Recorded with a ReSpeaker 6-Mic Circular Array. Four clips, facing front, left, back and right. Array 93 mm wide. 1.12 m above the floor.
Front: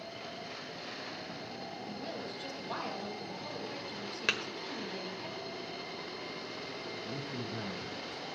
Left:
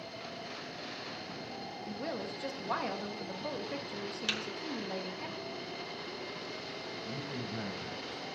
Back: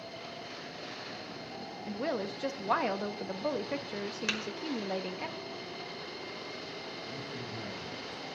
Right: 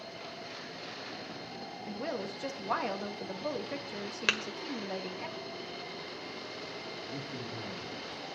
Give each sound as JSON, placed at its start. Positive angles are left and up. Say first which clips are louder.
{"t": 1.9, "sound": "a woman speaking", "louder": "right 2 dB, back 11 dB", "azimuth_deg": -170, "distance_m": 1.0}
{"t": 4.3, "sound": "tapping", "louder": "right 8 dB, front 4 dB", "azimuth_deg": -70, "distance_m": 1.3}
{"t": 7.0, "sound": "a man speaking", "louder": "left 2 dB, front 1 dB", "azimuth_deg": 55, "distance_m": 6.5}